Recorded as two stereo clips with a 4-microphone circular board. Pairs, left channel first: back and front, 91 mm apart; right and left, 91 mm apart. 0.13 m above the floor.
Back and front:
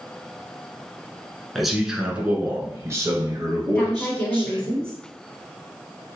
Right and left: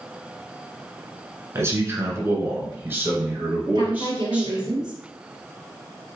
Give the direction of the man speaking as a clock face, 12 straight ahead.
9 o'clock.